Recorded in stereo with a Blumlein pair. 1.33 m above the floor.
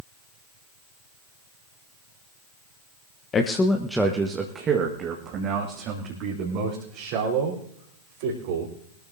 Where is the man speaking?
25° left, 1.0 m; by 8.7 s 50° right, 5 m.